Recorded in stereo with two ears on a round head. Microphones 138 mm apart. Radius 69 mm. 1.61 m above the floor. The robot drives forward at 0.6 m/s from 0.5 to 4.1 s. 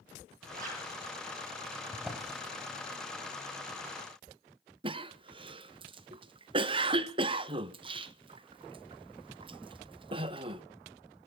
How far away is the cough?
About 1.0 m.